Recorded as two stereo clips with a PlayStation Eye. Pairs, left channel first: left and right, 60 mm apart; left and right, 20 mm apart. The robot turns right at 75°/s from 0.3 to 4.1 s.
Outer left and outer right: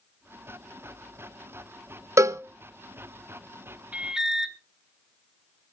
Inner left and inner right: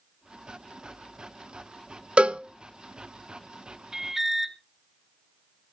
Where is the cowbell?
60° right (ahead or behind), 0.6 m; by 2.4 s 50° right (ahead or behind), 0.6 m.